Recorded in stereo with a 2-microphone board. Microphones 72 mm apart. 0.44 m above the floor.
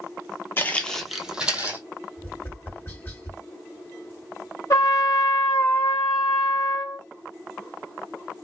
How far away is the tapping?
About 1.7 m.